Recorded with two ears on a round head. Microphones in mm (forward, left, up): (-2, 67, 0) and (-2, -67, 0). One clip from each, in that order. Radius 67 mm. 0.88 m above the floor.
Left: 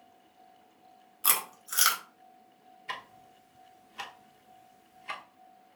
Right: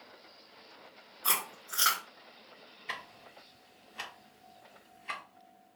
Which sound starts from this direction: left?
Chewing, at 1.2 s.